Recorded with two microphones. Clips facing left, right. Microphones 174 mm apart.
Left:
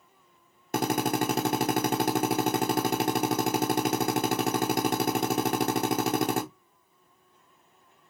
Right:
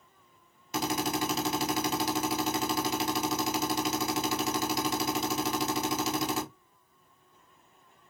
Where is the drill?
55° left (ahead or behind), 1.2 m.